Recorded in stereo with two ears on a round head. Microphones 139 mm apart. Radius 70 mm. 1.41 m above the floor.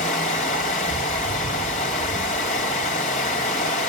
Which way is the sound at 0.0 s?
50° left (ahead or behind).